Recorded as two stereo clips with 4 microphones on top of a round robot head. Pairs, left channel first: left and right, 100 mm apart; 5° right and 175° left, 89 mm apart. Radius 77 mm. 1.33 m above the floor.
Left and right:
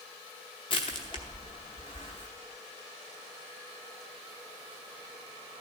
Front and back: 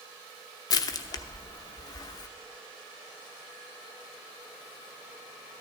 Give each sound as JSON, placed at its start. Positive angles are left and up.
{"t": 0.7, "sound": "crushing", "azimuth_deg": 35, "distance_m": 0.8}